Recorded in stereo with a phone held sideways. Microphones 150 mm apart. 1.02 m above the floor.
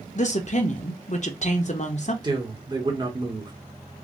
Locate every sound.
0.1 s a woman speaking: 50° left (ahead or behind), 0.5 m
2.2 s a man speaking: 30° right (ahead or behind), 1.0 m